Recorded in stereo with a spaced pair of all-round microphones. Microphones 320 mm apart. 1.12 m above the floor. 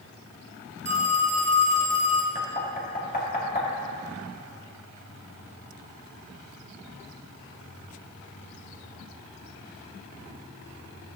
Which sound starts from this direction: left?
Knocking, at 2.4 s.